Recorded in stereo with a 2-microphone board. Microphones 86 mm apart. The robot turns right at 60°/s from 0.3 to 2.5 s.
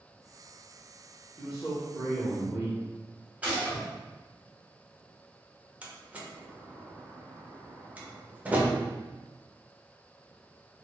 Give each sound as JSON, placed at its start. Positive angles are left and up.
{"t": 1.4, "sound": "a man speaking", "side_deg": 5, "distance_m": 1.0}
{"t": 3.4, "sound": "a gunshot", "side_deg": -20, "distance_m": 1.0}
{"t": 5.8, "sound": "a door slam", "side_deg": -15, "distance_m": 0.6}